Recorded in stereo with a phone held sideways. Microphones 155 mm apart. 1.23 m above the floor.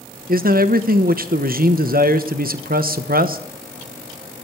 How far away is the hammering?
I don't hear hammering.